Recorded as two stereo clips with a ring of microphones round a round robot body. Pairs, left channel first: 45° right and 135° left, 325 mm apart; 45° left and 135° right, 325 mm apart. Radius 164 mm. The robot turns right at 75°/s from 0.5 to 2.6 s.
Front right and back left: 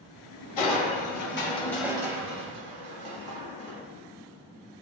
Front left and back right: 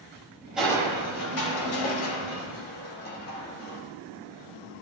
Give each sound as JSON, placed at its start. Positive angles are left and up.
{"t": 0.6, "sound": "crushing", "azimuth_deg": -45, "distance_m": 1.6}